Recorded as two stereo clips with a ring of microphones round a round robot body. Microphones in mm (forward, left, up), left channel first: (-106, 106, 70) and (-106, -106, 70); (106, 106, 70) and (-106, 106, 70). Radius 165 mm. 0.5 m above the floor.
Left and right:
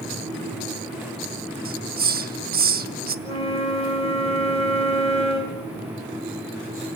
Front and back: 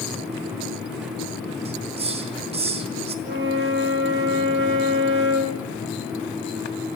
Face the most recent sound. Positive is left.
turn(degrees=155)